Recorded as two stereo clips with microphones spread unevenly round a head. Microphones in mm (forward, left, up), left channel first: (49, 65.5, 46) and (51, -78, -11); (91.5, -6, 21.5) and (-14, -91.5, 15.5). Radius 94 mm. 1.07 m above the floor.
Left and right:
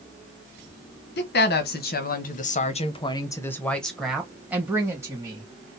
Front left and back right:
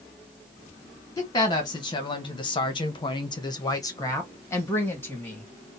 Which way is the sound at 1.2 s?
100° left.